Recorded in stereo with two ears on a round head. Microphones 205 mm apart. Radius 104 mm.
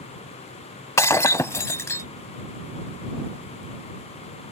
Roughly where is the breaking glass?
Centre.